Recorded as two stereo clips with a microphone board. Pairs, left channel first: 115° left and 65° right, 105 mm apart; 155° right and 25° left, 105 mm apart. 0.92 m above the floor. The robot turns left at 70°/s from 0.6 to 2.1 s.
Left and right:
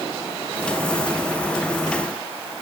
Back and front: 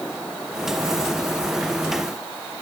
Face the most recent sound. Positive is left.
No sound to turn to.